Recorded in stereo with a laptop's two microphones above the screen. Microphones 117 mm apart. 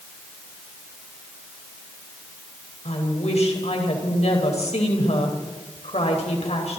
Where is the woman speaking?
65° left (ahead or behind), 4.5 m.